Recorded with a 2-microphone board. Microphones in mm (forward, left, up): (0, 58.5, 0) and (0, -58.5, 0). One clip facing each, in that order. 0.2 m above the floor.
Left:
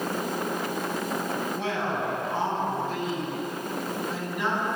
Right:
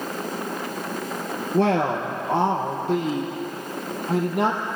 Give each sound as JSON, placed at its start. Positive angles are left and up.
{"t": 1.5, "sound": "a woman speaking", "side_deg": -70, "distance_m": 3.5}